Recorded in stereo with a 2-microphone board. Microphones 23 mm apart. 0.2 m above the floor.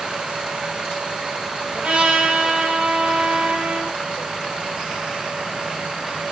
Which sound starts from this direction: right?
A trumpet, at 1.8 s.